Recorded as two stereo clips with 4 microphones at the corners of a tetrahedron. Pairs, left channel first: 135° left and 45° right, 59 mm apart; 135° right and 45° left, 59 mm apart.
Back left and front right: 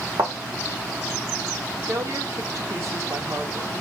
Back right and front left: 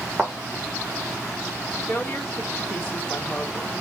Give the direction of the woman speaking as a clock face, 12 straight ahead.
3 o'clock.